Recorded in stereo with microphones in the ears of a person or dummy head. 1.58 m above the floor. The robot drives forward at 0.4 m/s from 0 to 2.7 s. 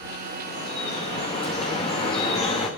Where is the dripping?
35° left (ahead or behind), 3 m; by 2.7 s 30° left (ahead or behind), 3.5 m.